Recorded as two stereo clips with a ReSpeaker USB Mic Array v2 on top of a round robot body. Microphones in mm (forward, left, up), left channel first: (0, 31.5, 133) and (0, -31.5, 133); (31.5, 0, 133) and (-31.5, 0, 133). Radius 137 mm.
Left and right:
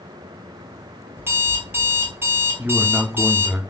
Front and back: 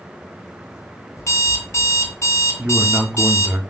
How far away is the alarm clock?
About 1.4 m.